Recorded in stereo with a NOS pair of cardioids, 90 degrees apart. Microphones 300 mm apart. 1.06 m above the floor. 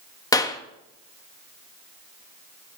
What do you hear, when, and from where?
0.3 s a clap: 10° left, 1.3 m